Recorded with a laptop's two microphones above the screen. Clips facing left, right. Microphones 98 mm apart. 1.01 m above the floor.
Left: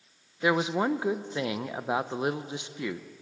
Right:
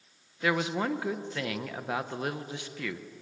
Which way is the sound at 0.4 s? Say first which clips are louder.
Left 3 dB; 20° left (ahead or behind).